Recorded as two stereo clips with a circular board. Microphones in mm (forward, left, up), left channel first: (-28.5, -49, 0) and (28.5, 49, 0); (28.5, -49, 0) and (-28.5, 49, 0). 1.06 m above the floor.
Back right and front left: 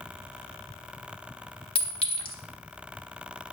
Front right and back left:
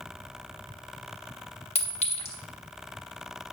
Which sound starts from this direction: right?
A clink, at 1.8 s.